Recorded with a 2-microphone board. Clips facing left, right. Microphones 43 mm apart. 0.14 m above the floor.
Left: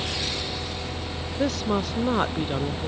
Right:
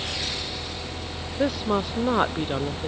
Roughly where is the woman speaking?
Centre.